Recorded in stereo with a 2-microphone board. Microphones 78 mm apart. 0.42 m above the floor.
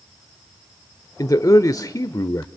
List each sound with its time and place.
1.2 s a man speaking: 40° left (ahead or behind), 1.0 m